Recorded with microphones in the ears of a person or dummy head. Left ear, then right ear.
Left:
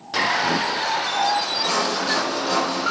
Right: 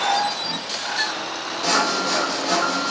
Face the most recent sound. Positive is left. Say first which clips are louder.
# right 1 dB
turn(degrees=-75)  # may be behind; listen again after turning